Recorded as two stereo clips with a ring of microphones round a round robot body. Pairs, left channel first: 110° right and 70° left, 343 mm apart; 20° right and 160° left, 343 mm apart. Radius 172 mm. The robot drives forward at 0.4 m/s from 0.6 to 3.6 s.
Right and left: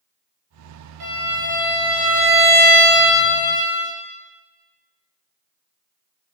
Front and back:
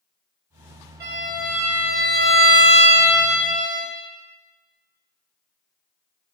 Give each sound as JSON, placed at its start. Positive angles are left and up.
{"t": 1.0, "sound": "a violin", "azimuth_deg": 100, "distance_m": 1.1}